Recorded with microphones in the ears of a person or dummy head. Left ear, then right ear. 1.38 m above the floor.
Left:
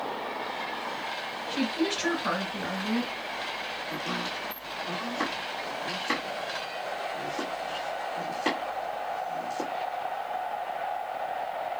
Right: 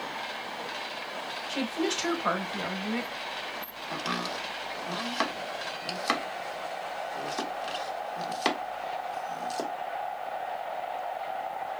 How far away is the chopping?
About 1.1 m.